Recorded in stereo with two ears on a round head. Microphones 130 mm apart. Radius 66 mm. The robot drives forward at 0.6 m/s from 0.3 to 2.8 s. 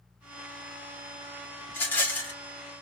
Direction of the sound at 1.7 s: 15° left (ahead or behind).